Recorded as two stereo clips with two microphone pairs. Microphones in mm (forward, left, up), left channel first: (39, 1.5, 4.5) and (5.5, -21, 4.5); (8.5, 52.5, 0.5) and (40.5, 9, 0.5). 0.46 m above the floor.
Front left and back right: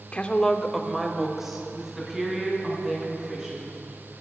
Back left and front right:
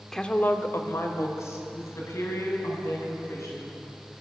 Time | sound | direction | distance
0.1 | a woman speaking | 50° left | 0.8 m